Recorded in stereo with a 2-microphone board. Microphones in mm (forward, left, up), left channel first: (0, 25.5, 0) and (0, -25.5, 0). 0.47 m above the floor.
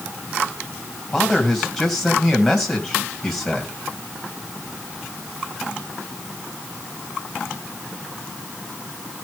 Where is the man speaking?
10° left (ahead or behind), 2.5 m.